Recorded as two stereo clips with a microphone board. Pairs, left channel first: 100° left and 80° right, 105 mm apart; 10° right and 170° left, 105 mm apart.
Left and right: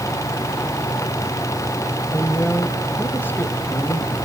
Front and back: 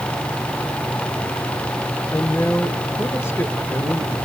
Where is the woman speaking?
40° left, 1.3 m.